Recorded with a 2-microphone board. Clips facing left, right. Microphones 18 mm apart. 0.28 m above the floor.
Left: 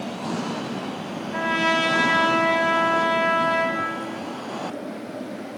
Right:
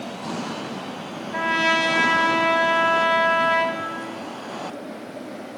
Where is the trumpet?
10° right (ahead or behind), 0.9 m.